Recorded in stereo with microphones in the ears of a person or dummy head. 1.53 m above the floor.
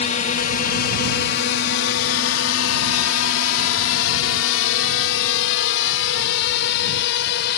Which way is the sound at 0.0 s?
45° left (ahead or behind).